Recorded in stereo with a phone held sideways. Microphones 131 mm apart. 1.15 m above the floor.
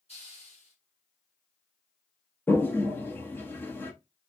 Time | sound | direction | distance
0.1 | a hiss | 55° left (ahead or behind) | 4.5 m
2.5 | a toilet flushing | 15° left (ahead or behind) | 0.8 m